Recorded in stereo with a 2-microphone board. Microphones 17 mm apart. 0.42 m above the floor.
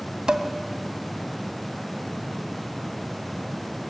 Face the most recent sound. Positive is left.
turn(degrees=-55)  # may be behind; listen again after turning